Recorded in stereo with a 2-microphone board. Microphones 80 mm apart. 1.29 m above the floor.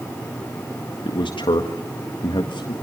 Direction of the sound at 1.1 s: 85° left.